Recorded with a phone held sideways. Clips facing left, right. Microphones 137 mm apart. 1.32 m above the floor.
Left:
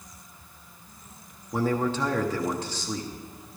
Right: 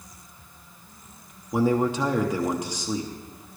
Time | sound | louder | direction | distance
1.5 | a man speaking | right 4 dB | 15° right (ahead or behind) | 0.9 m